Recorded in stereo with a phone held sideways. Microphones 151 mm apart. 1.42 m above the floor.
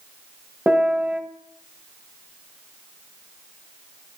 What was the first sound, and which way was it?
A piano, 10° right (ahead or behind).